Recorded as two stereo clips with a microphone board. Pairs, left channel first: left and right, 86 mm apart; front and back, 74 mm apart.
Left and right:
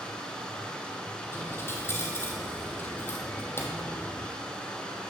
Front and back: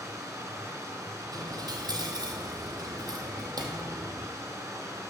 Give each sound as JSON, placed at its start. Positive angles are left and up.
{"t": 0.0, "sound": "running water", "azimuth_deg": 160, "distance_m": 1.7}
{"t": 1.3, "sound": "a dropped coin", "azimuth_deg": 150, "distance_m": 1.3}